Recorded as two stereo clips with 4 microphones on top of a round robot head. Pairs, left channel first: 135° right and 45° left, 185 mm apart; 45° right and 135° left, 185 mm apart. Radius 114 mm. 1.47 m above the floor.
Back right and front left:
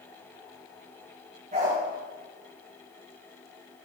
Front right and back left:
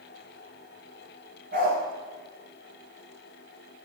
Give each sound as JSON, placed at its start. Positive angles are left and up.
{"t": 1.5, "sound": "a dog barking", "azimuth_deg": 95, "distance_m": 6.5}